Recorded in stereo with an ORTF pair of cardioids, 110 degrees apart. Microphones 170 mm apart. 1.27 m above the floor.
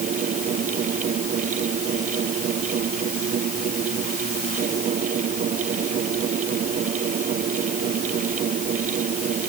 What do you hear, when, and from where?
0.0 s a fan: 50° right